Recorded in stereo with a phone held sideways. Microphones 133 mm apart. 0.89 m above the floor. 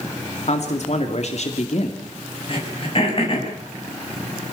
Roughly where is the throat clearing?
Left.